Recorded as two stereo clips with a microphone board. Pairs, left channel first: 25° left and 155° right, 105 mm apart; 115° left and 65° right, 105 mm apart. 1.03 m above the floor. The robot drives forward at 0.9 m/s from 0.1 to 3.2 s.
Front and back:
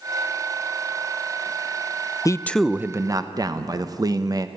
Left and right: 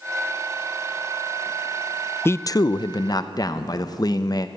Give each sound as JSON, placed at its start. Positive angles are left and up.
{"t": 2.2, "sound": "a man speaking", "azimuth_deg": 55, "distance_m": 0.5}